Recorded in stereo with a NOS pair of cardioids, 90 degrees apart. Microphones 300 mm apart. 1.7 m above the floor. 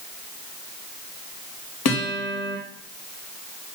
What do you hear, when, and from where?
1.9 s a guitar: 60° left, 3.5 m